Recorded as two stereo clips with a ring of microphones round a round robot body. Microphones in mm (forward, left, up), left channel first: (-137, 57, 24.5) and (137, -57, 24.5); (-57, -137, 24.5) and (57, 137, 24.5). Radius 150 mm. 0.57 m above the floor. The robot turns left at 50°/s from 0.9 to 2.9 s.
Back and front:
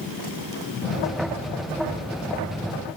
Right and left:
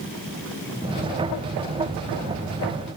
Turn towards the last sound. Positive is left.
No sound to turn to.